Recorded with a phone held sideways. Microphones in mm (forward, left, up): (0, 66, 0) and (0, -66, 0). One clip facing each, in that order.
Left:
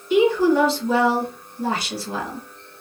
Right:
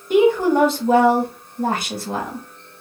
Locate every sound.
0.1 s a woman speaking: 50° right (ahead or behind), 0.9 m